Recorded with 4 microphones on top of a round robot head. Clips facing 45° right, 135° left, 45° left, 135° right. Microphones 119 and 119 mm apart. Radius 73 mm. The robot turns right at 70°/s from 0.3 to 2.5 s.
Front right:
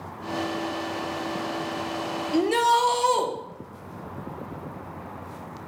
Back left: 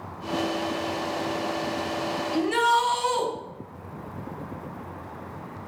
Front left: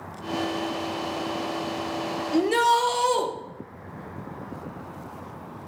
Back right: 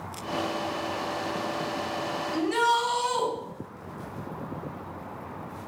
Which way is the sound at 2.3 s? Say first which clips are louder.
Front right 2 dB, front left 4 dB; straight ahead.